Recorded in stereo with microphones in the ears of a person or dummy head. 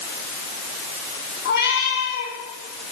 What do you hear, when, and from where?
1.4 s a cat meowing: 50° left (ahead or behind), 3.5 m